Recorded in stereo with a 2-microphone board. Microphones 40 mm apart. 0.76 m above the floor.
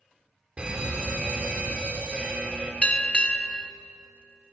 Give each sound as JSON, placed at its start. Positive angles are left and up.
{"t": 0.6, "sound": "a fire alarm", "side_deg": -30, "distance_m": 4.0}
{"t": 2.8, "sound": "a bell", "side_deg": 30, "distance_m": 1.0}